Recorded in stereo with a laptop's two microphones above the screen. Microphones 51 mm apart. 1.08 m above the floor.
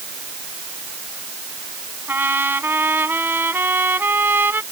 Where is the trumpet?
45° right (ahead or behind).